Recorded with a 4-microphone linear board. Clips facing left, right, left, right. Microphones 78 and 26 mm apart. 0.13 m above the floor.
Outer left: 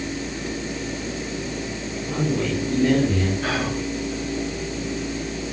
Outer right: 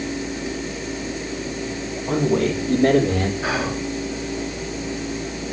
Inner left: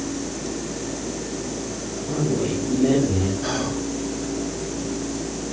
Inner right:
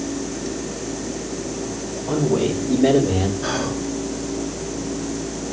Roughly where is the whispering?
Centre.